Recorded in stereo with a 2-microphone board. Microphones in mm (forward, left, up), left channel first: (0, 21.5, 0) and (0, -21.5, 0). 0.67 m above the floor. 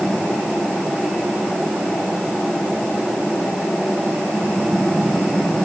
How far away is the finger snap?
I don't hear a finger snap.